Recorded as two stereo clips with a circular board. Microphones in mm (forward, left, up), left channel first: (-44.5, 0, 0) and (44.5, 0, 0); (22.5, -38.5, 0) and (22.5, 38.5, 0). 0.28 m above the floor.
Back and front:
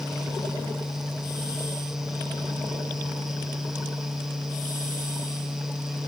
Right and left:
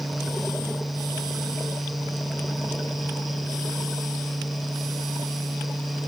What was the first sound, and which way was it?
Only background noise.